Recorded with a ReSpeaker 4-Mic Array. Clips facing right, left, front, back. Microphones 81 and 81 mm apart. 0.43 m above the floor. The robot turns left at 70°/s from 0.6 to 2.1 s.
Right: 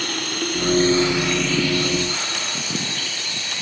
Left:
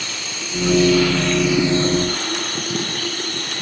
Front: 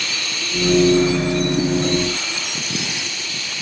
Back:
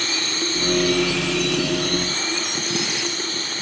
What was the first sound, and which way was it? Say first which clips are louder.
Running water: right 5 dB, back 2 dB; 125° right.